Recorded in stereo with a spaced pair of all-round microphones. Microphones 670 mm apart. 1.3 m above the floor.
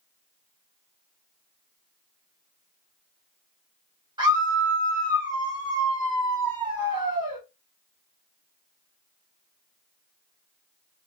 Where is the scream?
5° right (ahead or behind), 3 m.